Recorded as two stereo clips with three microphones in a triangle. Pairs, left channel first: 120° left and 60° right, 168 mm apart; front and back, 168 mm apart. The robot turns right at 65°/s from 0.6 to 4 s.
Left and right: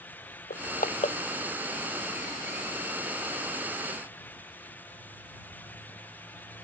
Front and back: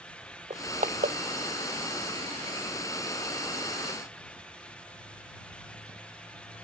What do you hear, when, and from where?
0.5 s crushing: 130° left; by 1.2 s 170° left